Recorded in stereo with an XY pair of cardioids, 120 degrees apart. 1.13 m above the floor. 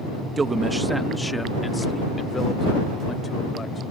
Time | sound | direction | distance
0.4 | a man speaking | 30° right | ?